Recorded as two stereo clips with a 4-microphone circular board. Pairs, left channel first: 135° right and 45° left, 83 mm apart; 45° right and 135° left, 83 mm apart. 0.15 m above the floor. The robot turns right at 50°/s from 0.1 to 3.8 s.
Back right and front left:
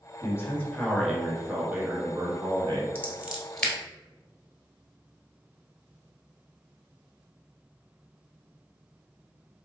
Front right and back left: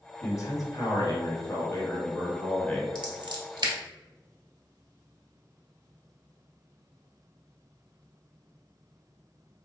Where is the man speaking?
90° right, 1.7 m; by 2.9 s 45° left, 1.7 m.